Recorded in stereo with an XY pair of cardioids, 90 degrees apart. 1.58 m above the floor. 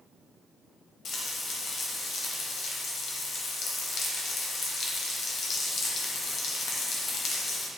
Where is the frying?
60° left, 0.8 m.